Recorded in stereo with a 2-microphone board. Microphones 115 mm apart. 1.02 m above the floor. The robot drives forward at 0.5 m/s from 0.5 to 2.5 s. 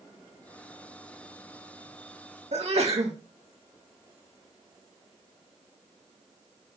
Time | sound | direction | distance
2.5 | a sneeze | 65° right (ahead or behind) | 2.0 m